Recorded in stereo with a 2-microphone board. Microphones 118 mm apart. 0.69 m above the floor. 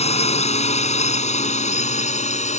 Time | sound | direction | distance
0.0 | a drone | 65° left (ahead or behind) | ?